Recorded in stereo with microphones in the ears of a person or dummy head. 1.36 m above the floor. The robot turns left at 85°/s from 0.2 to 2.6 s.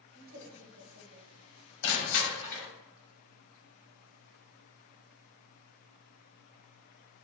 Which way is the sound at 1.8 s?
70° left.